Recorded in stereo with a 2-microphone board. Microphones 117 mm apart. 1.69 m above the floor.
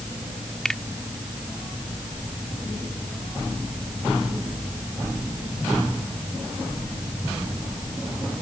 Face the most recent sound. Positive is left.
turn(degrees=5)  # may be behind; listen again after turning